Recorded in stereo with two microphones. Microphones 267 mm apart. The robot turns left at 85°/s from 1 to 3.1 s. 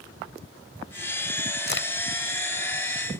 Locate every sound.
1.7 s a crack: 40° left (ahead or behind); by 1.9 s 55° left (ahead or behind)